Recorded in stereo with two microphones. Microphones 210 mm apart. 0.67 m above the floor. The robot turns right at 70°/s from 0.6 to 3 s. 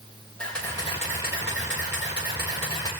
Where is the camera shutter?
5° left, 9 m; by 2.9 s 165° left, 9 m.